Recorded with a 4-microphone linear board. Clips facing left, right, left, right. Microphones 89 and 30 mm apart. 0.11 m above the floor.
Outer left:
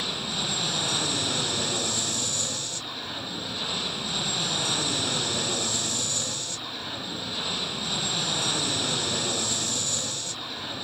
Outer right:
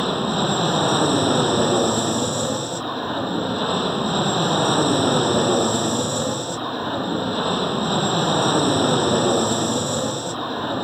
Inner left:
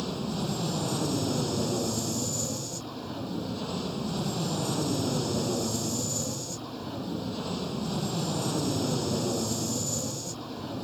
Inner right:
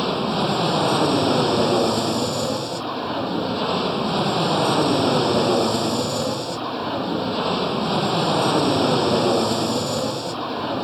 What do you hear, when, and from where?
0.0 s an aircraft: 45° right (ahead or behind)